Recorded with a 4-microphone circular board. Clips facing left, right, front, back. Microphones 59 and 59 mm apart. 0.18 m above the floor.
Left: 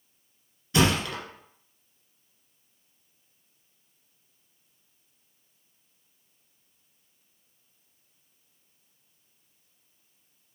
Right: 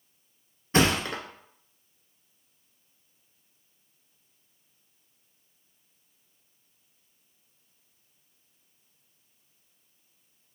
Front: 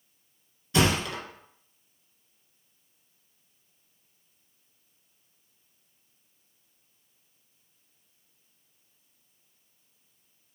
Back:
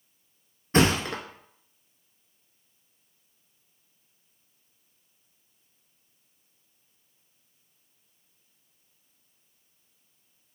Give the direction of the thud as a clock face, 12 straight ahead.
5 o'clock.